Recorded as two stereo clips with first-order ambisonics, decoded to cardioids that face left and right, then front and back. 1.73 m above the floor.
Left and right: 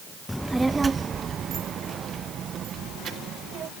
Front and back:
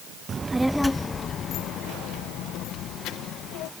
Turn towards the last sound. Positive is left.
turn(degrees=-35)